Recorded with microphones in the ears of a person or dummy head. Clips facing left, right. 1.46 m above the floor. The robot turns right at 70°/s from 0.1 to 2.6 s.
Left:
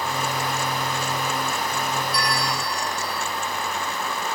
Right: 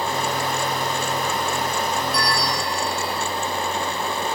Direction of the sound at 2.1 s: 110° left.